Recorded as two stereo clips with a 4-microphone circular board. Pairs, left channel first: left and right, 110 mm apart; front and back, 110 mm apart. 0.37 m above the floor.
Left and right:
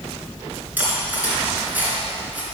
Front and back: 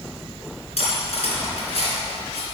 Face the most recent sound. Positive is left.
turn(degrees=-15)